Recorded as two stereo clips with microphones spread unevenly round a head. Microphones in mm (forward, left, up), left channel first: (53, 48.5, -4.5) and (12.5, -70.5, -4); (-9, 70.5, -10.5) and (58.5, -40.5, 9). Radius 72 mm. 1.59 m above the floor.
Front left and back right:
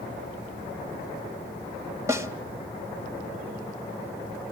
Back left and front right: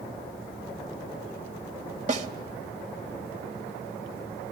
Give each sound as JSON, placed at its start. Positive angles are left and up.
{"t": 2.1, "sound": "a snare drum", "azimuth_deg": -45, "distance_m": 3.0}